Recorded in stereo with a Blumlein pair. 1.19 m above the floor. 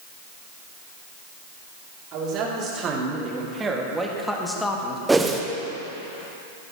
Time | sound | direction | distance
2.1 | a man speaking | 35° right | 3 m
5.1 | a whoosh | 10° right | 1.0 m